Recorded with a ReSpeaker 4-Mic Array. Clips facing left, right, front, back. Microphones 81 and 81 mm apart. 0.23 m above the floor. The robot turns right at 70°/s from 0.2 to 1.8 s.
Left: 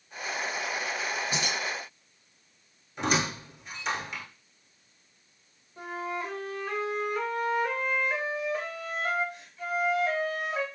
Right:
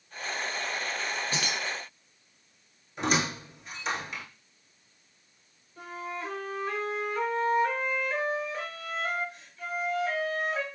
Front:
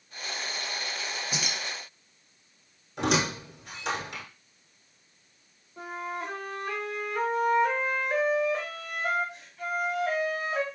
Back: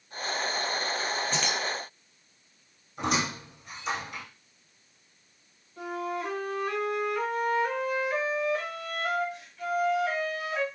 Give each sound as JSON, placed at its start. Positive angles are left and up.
{"t": 1.3, "sound": "keys jangling", "azimuth_deg": 55, "distance_m": 0.7}
{"t": 3.0, "sound": "a squeak", "azimuth_deg": 0, "distance_m": 1.0}
{"t": 5.8, "sound": "a flute", "azimuth_deg": 20, "distance_m": 1.7}